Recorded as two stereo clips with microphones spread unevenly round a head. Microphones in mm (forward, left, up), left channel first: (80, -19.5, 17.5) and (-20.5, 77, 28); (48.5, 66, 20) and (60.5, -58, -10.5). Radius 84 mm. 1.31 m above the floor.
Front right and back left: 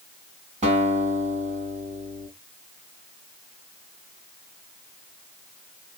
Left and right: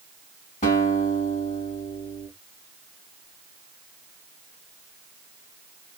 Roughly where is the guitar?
Left.